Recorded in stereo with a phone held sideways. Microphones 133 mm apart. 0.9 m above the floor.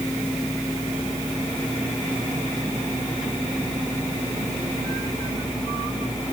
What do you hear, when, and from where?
Only background noise.